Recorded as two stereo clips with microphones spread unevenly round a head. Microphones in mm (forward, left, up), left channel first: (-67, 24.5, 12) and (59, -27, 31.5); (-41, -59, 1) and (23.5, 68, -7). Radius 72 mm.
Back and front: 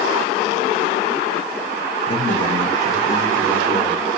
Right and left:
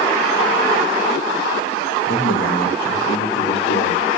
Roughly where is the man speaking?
Behind right.